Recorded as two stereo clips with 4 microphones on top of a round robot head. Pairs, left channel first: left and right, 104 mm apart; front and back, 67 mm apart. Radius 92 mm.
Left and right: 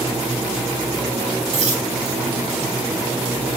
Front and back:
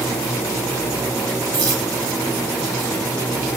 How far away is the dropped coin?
About 3.5 m.